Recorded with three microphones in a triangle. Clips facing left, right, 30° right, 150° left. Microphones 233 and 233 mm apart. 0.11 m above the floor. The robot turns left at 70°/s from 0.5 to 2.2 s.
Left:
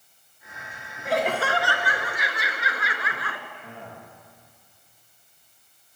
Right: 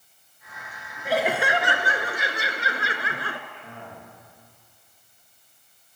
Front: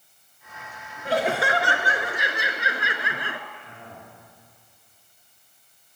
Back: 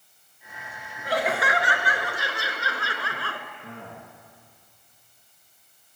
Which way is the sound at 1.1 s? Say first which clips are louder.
Right 1 dB, front 3 dB; straight ahead.